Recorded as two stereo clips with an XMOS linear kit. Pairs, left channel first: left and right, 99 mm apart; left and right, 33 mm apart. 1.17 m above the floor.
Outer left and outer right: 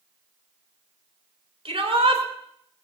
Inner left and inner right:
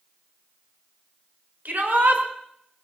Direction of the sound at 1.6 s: 70° right (ahead or behind).